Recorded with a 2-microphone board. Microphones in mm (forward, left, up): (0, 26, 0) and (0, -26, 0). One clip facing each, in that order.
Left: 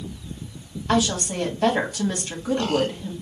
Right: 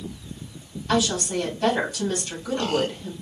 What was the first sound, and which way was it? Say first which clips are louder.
A woman speaking: left 1 dB; 35° left (ahead or behind).